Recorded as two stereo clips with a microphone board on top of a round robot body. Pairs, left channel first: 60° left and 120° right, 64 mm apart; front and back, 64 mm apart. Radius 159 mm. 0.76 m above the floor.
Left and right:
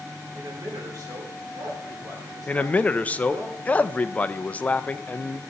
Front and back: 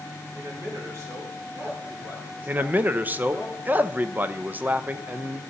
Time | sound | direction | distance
0.3 | a man speaking | 145° right | 3 m
2.5 | a man speaking | 125° left | 0.6 m